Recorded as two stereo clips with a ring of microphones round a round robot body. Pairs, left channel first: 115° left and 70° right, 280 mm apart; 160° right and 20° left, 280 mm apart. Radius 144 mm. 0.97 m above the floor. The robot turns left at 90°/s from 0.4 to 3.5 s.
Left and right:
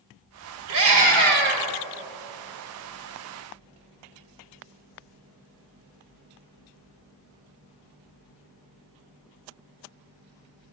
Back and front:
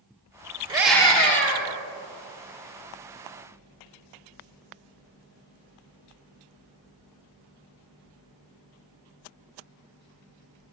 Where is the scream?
50° right, 3 m; by 1.7 s 140° right, 3 m.